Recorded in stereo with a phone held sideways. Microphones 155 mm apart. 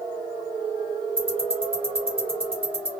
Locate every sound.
1.2 s ticking: 35° right (ahead or behind), 1.4 m